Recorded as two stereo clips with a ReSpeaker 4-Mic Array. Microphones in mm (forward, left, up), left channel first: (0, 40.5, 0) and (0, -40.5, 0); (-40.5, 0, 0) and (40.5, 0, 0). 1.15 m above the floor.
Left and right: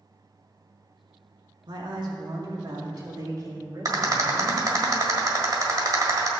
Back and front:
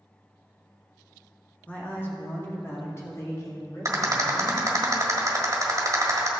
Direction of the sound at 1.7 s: 110° right.